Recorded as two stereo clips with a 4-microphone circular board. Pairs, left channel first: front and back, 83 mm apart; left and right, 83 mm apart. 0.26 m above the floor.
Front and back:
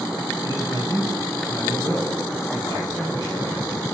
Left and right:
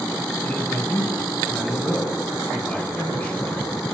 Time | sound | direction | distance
0.4 | a man speaking | 25° left | 2.5 m